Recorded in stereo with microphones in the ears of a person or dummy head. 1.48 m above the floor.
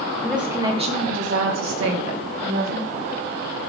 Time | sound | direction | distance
0.2 | a woman speaking | 5° left (ahead or behind) | 1.5 m